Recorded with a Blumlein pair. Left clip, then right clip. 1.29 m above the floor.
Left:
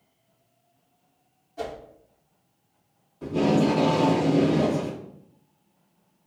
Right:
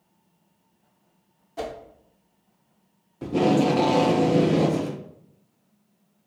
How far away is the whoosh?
About 0.7 m.